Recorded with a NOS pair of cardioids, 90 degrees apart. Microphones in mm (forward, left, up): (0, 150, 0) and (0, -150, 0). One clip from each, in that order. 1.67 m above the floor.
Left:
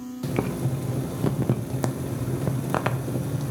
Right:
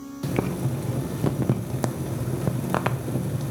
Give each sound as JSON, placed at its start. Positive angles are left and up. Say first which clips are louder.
{"t": 0.2, "sound": "boiling", "louder": "right 1 dB", "azimuth_deg": -10, "distance_m": 0.5}